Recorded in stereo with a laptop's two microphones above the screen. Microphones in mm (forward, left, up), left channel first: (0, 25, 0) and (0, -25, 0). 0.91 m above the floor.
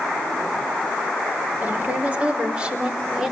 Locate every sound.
1.6 s a woman speaking: 35° right (ahead or behind), 3.5 m; by 3.3 s 15° right (ahead or behind), 3.5 m